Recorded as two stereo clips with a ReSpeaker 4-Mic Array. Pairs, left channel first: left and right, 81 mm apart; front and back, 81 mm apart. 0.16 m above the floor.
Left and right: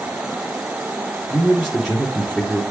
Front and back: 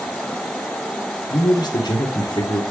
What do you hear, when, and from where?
1.3 s a man speaking: straight ahead, 2.5 m